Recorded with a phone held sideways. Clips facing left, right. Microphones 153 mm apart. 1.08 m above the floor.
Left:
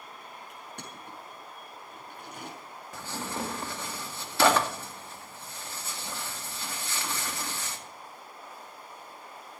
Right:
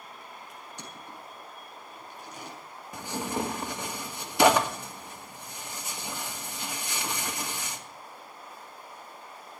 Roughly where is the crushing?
Left.